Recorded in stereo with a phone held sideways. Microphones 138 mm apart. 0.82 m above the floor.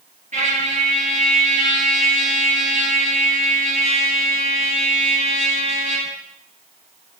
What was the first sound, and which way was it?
A trumpet, 60° right (ahead or behind).